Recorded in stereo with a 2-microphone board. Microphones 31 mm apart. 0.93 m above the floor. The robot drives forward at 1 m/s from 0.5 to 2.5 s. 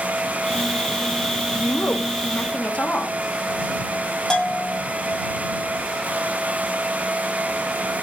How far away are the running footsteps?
No running footsteps in this recording.